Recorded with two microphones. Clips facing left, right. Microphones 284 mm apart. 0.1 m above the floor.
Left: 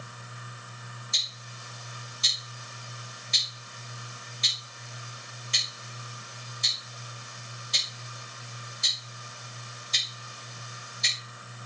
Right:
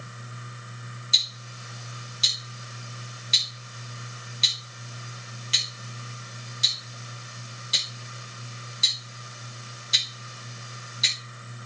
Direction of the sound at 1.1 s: 80° right.